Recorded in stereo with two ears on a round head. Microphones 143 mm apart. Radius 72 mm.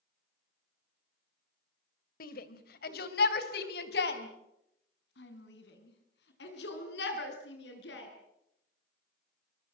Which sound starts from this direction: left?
A shout, at 2.2 s.